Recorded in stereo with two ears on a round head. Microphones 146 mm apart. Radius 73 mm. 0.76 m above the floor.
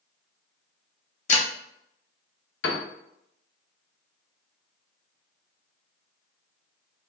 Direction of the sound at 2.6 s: 80° left.